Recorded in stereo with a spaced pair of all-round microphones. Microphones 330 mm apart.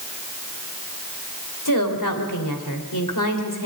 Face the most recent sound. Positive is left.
turn(degrees=70)  # may be behind; listen again after turning